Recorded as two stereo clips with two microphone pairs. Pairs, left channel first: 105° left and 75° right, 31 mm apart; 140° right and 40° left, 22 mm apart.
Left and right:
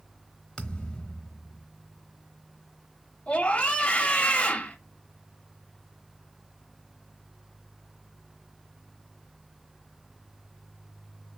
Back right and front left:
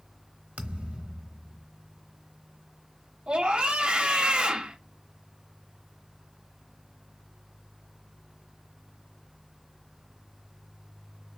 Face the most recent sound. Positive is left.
turn(degrees=55)